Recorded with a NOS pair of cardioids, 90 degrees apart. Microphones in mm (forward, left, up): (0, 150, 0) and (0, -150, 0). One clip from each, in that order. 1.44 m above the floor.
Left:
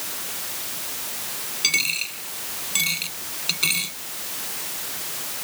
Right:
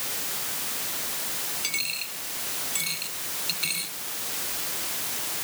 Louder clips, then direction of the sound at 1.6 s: Left 10 dB; 55° left.